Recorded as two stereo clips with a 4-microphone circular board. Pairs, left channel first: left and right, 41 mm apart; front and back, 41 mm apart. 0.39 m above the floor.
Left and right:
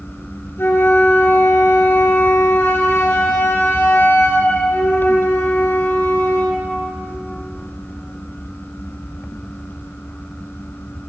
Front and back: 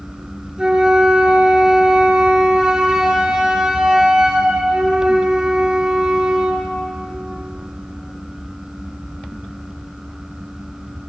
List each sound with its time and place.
0.6 s a flute: 110° left, 4 m